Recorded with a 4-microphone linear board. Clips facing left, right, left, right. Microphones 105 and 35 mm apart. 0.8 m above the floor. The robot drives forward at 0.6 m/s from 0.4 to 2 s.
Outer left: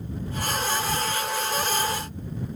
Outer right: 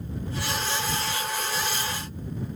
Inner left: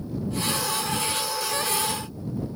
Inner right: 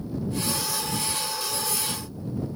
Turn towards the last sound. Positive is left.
No sound to turn to.